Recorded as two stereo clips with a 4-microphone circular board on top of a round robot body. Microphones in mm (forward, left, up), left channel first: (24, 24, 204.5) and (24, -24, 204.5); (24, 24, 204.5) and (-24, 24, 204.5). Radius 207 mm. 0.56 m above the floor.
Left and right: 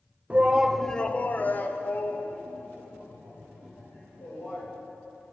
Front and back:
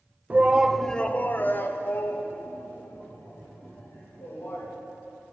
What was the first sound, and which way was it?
A shout, 140° right.